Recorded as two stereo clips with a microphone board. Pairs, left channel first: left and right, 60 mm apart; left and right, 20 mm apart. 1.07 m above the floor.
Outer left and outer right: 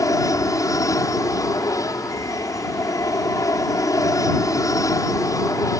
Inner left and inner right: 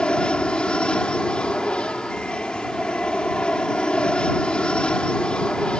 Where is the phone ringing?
I don't hear a phone ringing.